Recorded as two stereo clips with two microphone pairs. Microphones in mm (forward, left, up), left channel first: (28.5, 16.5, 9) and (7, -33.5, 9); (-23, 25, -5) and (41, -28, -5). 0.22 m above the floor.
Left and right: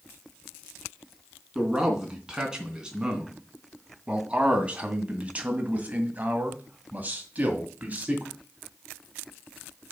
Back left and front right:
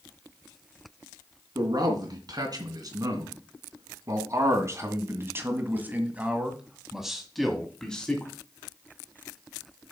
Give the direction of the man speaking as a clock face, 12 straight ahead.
1 o'clock.